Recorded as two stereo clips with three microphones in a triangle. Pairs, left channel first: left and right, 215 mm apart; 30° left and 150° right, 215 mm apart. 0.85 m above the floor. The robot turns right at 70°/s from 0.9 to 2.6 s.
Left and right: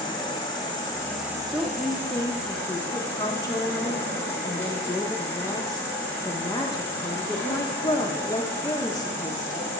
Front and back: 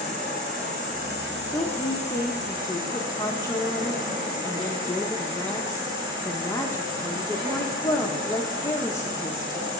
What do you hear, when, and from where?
0.0 s an insect: 160° left, 2.5 m; by 9.8 s 80° right, 2.5 m
1.5 s a woman speaking: 5° right, 0.7 m; by 9.7 s 70° left, 0.7 m